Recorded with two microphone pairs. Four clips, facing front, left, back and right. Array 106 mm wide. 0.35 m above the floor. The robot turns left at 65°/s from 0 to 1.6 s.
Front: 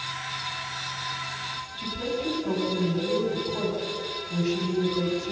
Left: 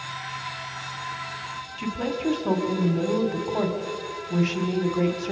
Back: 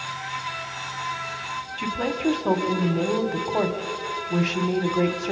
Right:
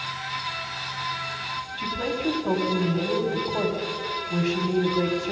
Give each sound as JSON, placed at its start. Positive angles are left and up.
{"t": 1.8, "sound": "a woman speaking", "azimuth_deg": 180, "distance_m": 2.5}